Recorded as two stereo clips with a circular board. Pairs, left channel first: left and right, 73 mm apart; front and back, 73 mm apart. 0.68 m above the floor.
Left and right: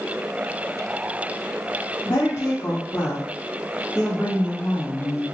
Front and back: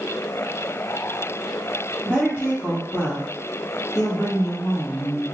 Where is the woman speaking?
80° left, 1.4 m; by 5.2 s 20° right, 2 m.